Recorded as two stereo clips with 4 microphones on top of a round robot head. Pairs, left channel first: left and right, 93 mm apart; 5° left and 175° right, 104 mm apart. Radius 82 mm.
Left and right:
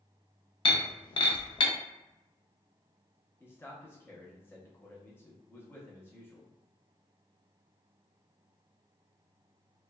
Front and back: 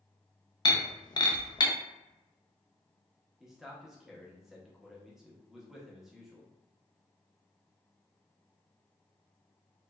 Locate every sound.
0.7 s breaking glass: 55° left, 0.6 m
3.4 s a man speaking: 105° left, 0.7 m